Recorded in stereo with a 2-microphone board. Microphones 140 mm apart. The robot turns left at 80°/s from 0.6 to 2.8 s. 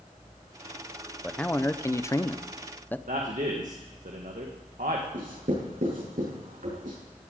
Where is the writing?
75° right (ahead or behind), 6.5 m.